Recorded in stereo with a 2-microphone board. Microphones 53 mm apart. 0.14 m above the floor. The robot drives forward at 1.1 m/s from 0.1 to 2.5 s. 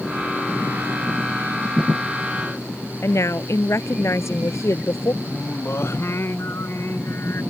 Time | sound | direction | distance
3.0 | a woman speaking | 60° left (ahead or behind) | ?
5.2 | singing | 50° left (ahead or behind) | ?